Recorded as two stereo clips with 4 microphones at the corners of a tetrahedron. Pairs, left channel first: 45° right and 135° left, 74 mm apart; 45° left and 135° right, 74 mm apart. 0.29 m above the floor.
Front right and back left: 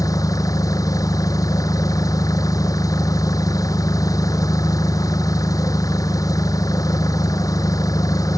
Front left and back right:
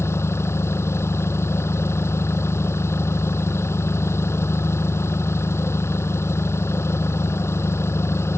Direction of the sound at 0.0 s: 5° right.